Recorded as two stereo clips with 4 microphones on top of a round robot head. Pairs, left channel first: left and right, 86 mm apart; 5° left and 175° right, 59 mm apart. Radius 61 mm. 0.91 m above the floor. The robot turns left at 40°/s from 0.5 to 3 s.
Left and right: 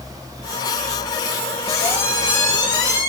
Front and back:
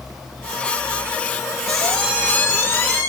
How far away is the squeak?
About 3 m.